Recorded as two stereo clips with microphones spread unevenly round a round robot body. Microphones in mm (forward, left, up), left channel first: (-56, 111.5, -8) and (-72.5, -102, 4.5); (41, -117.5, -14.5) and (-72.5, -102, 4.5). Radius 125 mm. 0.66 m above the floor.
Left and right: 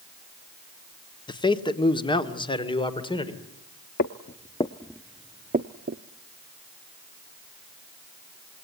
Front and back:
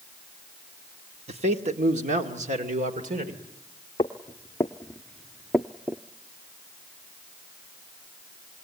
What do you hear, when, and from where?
1.3 s a man speaking: 145° left, 1.3 m; by 3.4 s 150° left, 2.5 m
4.0 s footsteps: 65° left, 0.8 m; by 6.0 s 115° right, 0.9 m